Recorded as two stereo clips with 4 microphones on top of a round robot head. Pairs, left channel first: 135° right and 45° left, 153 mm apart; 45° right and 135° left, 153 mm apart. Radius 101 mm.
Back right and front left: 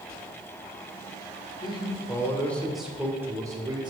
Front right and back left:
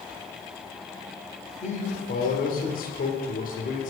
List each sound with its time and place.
1.6 s a man speaking: 80° right, 1.6 m; by 3.9 s 15° right, 1.7 m